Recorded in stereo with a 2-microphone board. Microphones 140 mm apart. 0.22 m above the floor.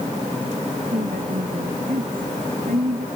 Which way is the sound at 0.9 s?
80° right.